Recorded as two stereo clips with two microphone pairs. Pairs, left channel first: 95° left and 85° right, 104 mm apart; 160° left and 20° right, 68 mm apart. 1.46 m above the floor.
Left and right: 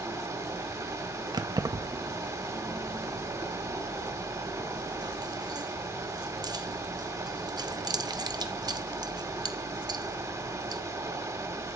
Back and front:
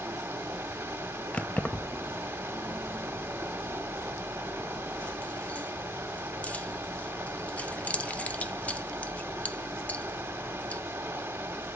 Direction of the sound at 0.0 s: 50° right.